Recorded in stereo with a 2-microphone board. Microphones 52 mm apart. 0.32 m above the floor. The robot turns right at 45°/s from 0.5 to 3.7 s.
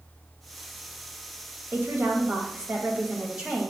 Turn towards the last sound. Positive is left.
turn(degrees=-10)